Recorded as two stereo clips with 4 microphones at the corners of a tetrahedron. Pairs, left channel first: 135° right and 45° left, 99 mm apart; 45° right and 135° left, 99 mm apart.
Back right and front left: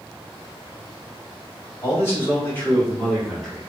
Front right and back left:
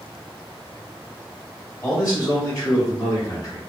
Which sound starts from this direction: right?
A man speaking, at 1.8 s.